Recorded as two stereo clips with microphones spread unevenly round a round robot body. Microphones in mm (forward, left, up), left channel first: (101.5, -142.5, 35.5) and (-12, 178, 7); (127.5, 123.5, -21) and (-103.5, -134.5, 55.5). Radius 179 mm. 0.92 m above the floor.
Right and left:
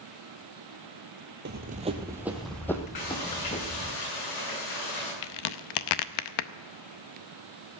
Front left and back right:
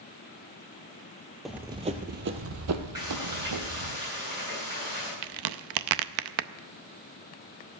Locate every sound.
1.4 s running footsteps: 155° left, 1.1 m; by 4.0 s 135° right, 2.5 m
3.0 s frying: 55° right, 9.5 m
5.2 s a crack: 100° right, 0.7 m